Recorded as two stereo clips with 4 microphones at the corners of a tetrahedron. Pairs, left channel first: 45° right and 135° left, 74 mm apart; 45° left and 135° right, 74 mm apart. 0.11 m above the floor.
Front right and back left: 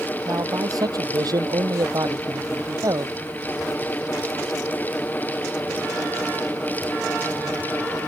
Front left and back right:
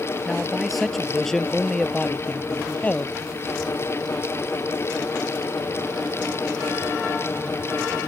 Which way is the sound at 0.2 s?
145° left.